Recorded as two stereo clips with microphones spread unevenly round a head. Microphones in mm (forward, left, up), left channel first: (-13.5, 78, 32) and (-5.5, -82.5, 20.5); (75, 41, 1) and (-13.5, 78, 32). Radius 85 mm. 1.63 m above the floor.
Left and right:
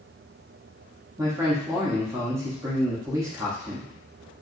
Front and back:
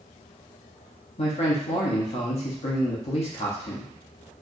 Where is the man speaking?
10° right, 0.8 m.